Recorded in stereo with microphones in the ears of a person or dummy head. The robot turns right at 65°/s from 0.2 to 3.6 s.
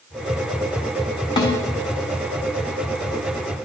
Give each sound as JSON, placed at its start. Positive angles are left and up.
{"t": 1.4, "sound": "a snare drum", "side_deg": 25, "distance_m": 1.7}